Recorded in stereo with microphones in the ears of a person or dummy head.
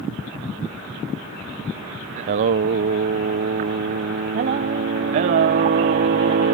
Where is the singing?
30° right (ahead or behind).